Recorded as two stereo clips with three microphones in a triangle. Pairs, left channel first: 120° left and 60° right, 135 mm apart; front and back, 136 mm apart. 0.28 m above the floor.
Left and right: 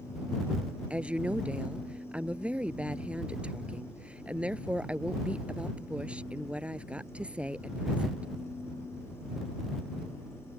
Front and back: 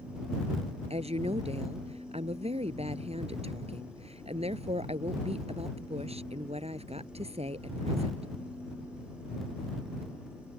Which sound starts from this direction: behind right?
A woman speaking, at 0.9 s.